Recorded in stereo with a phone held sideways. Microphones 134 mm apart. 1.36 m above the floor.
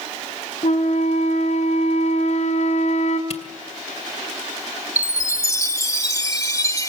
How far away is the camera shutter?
About 2.5 m.